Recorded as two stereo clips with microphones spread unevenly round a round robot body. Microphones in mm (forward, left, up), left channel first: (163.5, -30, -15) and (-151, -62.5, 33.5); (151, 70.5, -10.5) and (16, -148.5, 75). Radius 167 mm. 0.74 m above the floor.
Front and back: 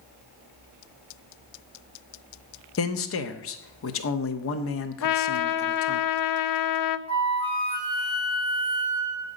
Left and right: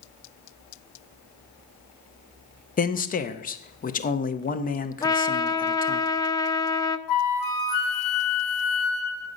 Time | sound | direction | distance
2.8 | a man speaking | 30° left | 0.9 m
5.0 | a trumpet | 10° right | 0.6 m
7.1 | a flute | 85° left | 1.3 m